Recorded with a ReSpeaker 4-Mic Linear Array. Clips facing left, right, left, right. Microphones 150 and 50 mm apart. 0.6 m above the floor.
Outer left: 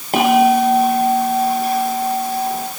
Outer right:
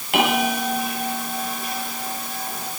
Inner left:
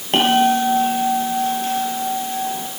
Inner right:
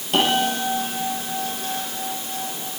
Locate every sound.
0.1 s a bell: 40° left (ahead or behind), 9 m